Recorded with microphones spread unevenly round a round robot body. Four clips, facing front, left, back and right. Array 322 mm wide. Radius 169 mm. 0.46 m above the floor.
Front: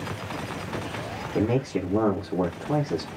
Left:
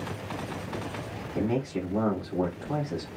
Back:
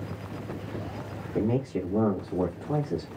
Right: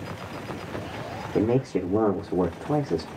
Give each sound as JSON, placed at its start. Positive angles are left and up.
{"t": 1.4, "sound": "a man speaking", "azimuth_deg": -70, "distance_m": 0.9}